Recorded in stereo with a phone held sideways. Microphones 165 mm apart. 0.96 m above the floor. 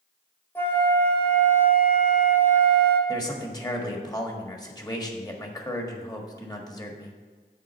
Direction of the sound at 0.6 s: 10° left (ahead or behind).